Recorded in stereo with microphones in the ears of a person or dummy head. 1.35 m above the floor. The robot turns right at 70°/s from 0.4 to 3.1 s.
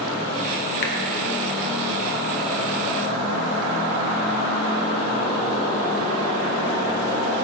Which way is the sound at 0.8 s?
60° left (ahead or behind).